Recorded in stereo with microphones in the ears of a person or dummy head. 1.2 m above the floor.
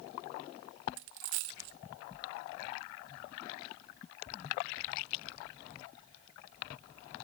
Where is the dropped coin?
50° right (ahead or behind), 0.7 m.